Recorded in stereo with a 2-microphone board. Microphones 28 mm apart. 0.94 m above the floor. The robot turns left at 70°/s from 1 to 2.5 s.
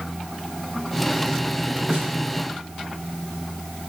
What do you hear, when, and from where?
1.9 s a snare drum: 30° right (ahead or behind), 3 m; by 2.1 s 10° right (ahead or behind), 3 m